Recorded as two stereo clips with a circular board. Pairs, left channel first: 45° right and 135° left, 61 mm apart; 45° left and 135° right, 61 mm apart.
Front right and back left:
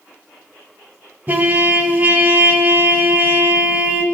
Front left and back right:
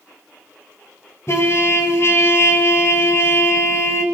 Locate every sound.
1.3 s a trumpet: 80° left, 0.8 m